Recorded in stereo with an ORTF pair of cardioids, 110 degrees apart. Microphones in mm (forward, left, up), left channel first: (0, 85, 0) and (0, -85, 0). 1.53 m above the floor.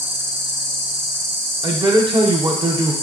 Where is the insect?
15° right, 1.0 m.